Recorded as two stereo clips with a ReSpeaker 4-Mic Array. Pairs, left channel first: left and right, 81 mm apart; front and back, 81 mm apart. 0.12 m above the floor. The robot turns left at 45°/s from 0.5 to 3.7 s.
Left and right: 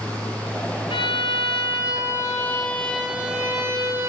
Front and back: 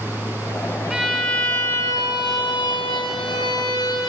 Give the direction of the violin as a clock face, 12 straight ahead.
9 o'clock.